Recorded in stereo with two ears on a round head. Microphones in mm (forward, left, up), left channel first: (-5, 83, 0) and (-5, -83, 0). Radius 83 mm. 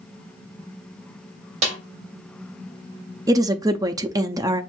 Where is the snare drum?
40° right (ahead or behind), 1.9 m.